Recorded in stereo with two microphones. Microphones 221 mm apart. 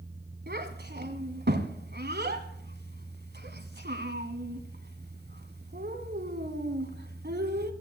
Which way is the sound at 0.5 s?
55° right (ahead or behind).